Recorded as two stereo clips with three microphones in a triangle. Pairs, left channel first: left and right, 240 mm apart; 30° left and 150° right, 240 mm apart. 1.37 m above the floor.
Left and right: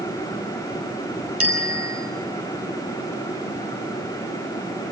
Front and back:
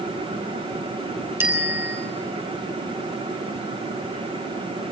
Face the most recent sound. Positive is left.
turn(degrees=-70)